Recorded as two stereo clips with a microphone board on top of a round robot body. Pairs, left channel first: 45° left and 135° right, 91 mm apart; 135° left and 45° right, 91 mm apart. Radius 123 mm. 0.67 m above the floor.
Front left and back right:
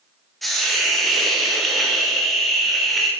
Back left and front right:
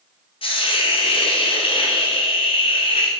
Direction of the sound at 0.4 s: 135° left.